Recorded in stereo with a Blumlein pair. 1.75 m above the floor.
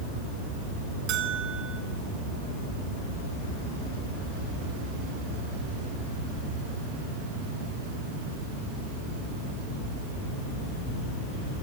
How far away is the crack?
No crack in this recording.